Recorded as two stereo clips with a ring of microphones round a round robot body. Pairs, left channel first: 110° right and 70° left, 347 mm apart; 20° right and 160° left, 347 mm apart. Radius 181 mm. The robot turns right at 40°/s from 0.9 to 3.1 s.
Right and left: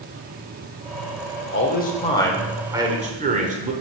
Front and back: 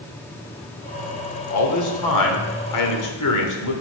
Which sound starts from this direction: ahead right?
A man speaking, at 1.5 s.